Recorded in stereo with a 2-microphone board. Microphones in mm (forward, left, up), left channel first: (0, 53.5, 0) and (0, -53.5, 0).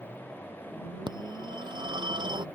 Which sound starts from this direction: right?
A phone ringing, at 1.1 s.